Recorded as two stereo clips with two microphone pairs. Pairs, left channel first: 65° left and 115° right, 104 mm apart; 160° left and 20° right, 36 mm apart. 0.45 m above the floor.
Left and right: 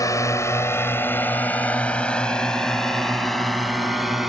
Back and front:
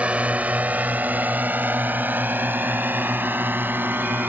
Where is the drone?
20° left; by 4.3 s 30° right.